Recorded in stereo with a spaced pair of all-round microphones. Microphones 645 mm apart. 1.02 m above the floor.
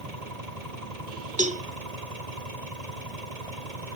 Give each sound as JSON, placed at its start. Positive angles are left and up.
{"t": 0.0, "sound": "an engine running", "side_deg": -75}
{"t": 1.4, "sound": "a cowbell", "side_deg": -10}